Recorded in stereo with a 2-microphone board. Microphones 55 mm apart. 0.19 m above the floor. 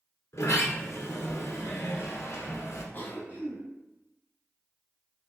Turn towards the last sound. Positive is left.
turn(degrees=40)  # may be behind; listen again after turning